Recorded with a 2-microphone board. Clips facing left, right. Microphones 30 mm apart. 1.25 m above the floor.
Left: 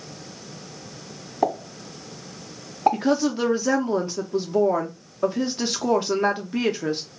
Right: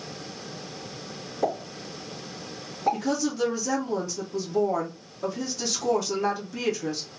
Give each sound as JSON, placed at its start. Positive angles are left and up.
{"t": 1.4, "sound": "a pop", "side_deg": 50, "distance_m": 1.7}
{"t": 2.9, "sound": "a woman speaking", "side_deg": 45, "distance_m": 0.5}